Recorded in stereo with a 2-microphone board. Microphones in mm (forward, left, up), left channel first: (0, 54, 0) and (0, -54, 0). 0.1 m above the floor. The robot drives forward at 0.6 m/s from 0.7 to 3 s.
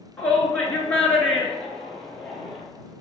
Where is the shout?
15° left (ahead or behind), 1.3 m; by 2.6 s 10° left (ahead or behind), 2.0 m.